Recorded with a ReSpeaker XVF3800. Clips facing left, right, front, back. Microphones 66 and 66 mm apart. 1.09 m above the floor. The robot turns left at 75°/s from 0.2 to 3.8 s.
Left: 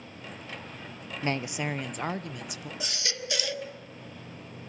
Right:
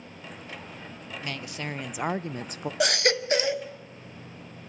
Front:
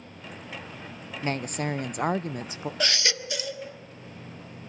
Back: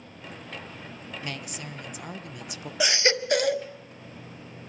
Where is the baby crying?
100° right, 0.7 m; by 3.7 s 165° right, 0.7 m.